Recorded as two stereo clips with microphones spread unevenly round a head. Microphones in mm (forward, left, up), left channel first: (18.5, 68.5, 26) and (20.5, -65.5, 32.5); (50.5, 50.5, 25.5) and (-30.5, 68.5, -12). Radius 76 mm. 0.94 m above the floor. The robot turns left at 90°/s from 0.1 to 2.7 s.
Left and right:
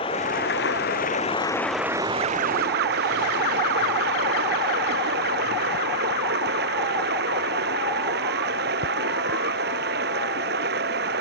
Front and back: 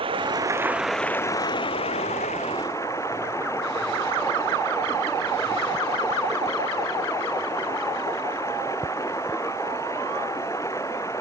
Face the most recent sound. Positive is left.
turn(degrees=-85)